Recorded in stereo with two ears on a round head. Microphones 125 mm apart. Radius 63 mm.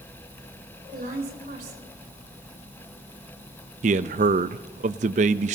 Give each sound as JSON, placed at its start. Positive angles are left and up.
{"t": 0.9, "sound": "a woman speaking", "side_deg": -65, "distance_m": 4.0}
{"t": 3.8, "sound": "a man speaking", "side_deg": -55, "distance_m": 0.6}